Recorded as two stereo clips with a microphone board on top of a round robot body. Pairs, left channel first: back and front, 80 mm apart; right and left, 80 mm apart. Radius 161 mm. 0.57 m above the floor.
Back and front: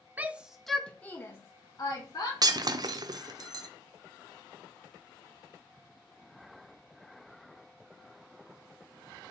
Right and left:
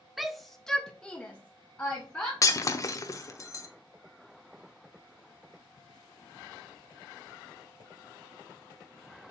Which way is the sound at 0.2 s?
5° left.